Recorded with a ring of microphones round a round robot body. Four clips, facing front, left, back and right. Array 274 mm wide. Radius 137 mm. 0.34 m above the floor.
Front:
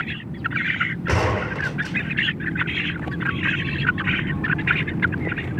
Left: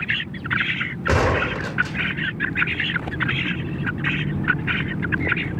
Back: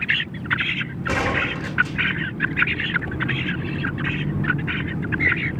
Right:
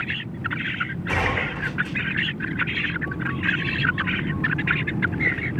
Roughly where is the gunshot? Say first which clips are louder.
Left 6 dB, even; left.